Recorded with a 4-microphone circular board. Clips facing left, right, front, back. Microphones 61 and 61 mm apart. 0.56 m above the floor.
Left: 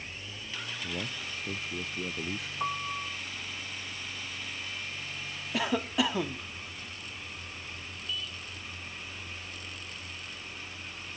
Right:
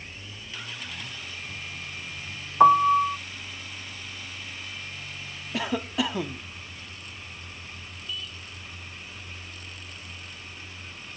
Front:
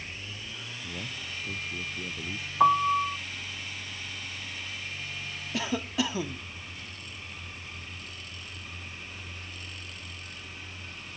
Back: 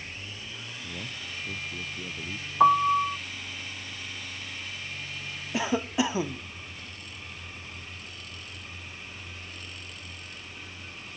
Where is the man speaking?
90° left.